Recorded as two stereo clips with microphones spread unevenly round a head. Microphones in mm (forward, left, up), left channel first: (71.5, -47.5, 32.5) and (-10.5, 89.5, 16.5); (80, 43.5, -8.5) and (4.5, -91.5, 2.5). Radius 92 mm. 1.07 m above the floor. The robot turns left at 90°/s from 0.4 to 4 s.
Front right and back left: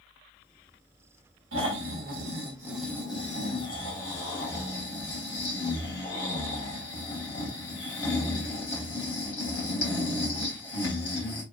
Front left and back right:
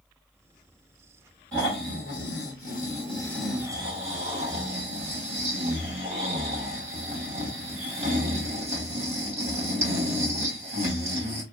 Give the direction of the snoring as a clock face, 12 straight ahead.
7 o'clock.